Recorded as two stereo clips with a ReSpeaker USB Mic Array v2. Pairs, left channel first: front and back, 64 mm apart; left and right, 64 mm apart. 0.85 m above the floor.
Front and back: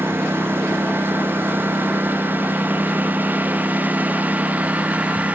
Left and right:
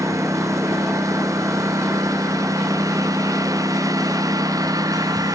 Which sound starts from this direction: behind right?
A lawn mower, at 0.0 s.